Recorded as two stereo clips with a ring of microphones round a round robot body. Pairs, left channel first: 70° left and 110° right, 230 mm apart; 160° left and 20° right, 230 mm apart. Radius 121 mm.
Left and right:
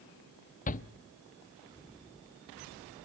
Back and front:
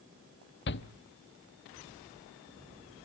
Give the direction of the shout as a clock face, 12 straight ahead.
8 o'clock.